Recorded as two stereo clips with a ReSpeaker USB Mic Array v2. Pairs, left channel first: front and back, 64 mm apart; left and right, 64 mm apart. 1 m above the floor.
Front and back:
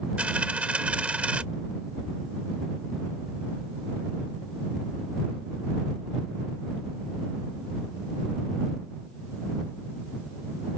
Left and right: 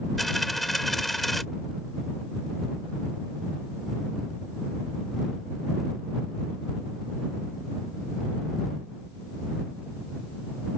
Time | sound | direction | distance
0.2 | a dropped coin | 175° left | ?